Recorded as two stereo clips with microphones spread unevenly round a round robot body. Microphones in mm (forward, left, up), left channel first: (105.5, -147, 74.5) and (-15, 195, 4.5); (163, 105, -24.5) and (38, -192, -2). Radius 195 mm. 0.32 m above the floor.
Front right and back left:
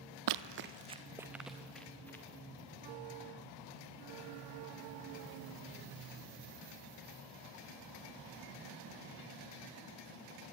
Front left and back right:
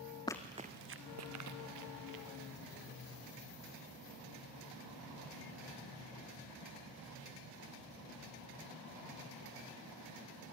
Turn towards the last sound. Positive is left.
turn(degrees=-155)